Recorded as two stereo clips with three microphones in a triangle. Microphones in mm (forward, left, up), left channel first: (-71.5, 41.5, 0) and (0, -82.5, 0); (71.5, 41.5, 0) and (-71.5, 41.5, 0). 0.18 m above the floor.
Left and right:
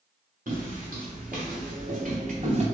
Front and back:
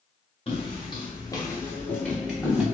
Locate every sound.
0.5 s footsteps: 50° right, 1.6 m; by 2.6 s 95° right, 1.3 m